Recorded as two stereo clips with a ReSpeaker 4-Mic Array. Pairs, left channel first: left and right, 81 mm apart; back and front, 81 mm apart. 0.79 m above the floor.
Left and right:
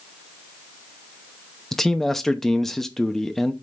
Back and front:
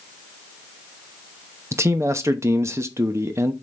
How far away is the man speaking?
About 0.8 m.